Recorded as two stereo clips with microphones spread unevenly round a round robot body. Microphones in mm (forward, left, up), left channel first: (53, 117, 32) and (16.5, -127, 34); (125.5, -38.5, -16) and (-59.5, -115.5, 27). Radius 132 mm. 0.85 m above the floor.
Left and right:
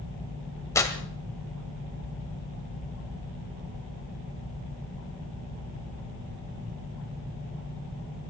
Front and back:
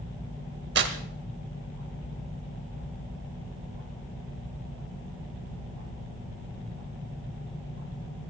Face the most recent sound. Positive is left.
turn(degrees=160)